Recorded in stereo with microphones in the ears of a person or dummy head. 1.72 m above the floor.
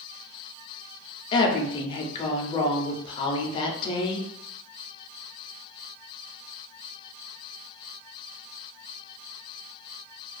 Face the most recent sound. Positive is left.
turn(degrees=30)  # may be behind; listen again after turning